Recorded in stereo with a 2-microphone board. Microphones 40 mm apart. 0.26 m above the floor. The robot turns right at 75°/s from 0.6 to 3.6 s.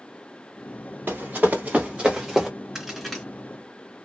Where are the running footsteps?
70° right (ahead or behind), 1.5 m; by 2.5 s centre (ahead or behind), 0.9 m.